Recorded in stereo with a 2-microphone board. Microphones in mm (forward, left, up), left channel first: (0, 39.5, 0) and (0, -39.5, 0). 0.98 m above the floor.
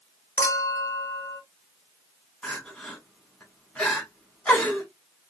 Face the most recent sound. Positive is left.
turn(degrees=15)  # may be behind; listen again after turning